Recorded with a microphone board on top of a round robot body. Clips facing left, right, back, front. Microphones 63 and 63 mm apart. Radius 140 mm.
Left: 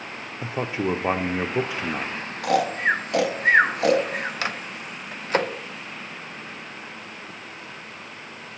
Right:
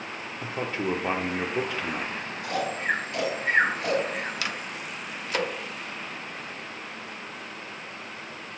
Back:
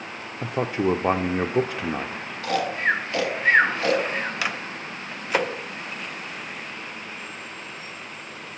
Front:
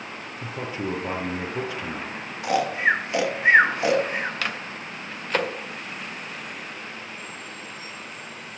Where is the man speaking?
160° left, 0.5 m.